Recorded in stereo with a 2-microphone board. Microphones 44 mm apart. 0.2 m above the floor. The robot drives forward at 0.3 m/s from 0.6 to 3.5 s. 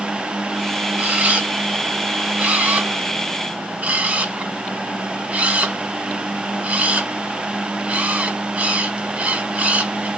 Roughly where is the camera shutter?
Right.